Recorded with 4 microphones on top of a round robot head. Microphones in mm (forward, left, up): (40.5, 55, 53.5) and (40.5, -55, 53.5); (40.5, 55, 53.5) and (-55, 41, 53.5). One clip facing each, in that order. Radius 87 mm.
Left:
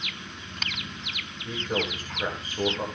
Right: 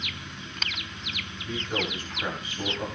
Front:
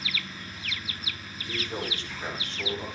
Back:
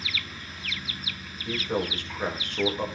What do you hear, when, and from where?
1.4 s a man speaking: 150° left, 7.5 m